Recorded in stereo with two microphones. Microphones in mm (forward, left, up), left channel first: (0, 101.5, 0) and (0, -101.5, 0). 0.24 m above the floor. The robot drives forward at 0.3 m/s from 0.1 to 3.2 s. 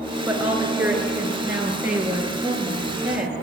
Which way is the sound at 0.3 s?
10° right (ahead or behind).